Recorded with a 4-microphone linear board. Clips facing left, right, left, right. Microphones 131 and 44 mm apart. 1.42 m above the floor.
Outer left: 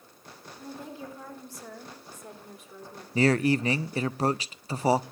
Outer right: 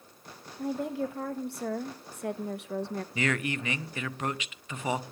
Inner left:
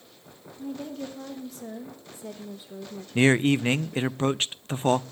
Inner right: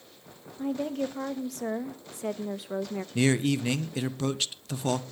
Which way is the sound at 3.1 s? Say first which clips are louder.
Outer left 9 dB, inner left 5 dB; 35° left (ahead or behind).